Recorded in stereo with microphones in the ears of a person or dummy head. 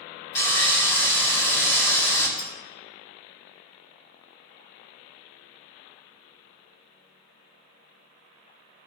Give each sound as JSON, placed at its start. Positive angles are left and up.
{"t": 0.3, "sound": "sawing", "side_deg": 20, "distance_m": 3.5}
{"t": 2.4, "sound": "a clink", "side_deg": 20, "distance_m": 3.0}